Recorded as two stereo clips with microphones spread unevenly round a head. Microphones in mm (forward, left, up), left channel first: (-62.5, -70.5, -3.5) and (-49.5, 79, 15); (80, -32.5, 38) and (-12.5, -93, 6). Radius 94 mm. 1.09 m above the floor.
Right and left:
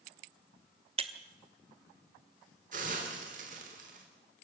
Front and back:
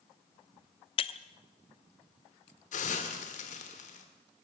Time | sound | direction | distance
1.0 | breaking glass | 35° left | 0.8 m
2.7 | a hiss | 30° left | 3 m